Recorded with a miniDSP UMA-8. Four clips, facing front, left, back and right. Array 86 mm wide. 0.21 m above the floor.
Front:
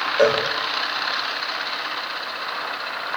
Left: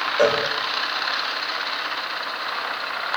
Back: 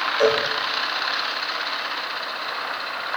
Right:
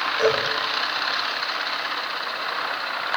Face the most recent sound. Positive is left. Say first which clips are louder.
# left 2 dB, front 2 dB
turn(degrees=35)